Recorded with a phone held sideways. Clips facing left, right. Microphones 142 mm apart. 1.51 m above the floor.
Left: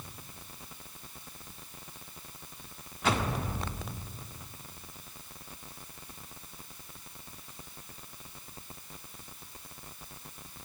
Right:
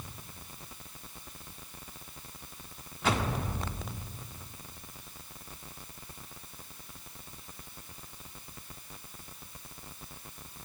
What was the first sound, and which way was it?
Only background noise.